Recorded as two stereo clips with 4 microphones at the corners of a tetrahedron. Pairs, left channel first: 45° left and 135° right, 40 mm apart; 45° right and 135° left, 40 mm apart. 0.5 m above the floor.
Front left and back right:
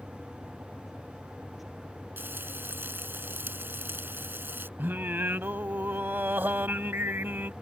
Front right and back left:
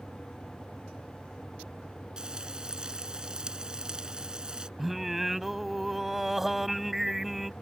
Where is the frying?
155° right.